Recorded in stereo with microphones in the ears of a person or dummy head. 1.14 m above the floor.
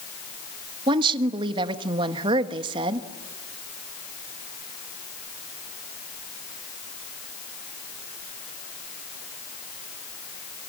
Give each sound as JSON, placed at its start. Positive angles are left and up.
{"t": 0.9, "sound": "a woman speaking", "side_deg": -30, "distance_m": 1.2}